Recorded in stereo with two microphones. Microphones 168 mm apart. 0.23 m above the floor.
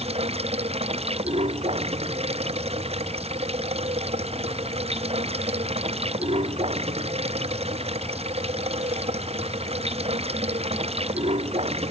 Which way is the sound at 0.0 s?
35° right (ahead or behind).